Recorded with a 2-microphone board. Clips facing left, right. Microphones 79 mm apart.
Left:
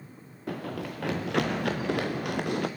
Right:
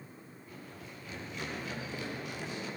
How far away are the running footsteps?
About 1.7 m.